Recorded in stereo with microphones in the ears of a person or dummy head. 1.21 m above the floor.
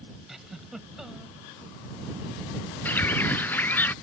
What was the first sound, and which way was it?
A giggle, centre (ahead or behind).